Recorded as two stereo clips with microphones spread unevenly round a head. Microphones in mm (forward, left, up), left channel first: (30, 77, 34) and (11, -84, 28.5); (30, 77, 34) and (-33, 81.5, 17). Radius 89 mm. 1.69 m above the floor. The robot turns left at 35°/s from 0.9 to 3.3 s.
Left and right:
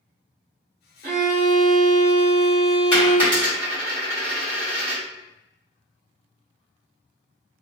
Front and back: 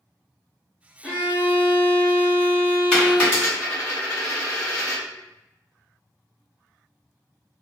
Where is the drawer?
I don't hear a drawer.